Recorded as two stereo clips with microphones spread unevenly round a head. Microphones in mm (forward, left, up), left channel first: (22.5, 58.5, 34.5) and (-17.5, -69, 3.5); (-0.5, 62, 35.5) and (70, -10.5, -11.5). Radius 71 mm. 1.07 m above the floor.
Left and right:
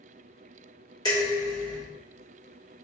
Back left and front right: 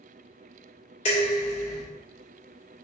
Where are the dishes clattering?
135° left, 1.6 m.